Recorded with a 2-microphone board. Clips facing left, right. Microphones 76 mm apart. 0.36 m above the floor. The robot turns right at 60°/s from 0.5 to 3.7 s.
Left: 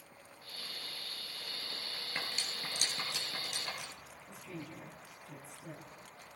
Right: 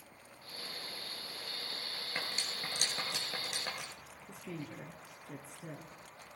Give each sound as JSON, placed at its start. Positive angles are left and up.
{"t": 2.1, "sound": "cutlery clinking", "side_deg": -15, "distance_m": 4.0}
{"t": 4.3, "sound": "a woman speaking", "side_deg": -65, "distance_m": 4.0}